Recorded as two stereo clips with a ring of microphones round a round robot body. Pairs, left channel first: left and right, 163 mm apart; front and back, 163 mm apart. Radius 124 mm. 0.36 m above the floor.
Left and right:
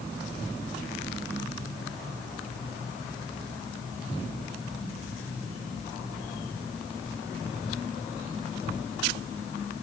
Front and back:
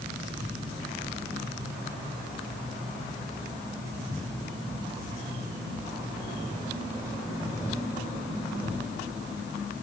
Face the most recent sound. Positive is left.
No sound to turn to.